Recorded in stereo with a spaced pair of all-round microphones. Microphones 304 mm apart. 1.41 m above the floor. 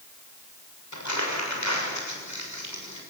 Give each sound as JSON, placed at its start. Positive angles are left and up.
{"t": 0.9, "sound": "crumpling", "side_deg": 65, "distance_m": 6.5}